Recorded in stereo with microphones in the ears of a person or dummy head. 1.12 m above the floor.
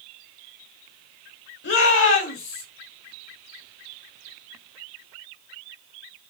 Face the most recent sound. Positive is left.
turn(degrees=70)  # may be behind; listen again after turning